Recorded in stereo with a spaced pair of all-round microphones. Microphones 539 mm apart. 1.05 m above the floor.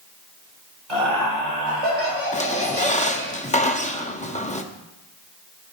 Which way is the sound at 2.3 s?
15° left (ahead or behind).